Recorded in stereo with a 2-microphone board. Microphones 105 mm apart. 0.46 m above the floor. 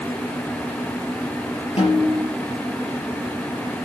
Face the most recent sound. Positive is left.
turn(degrees=65)  # may be behind; listen again after turning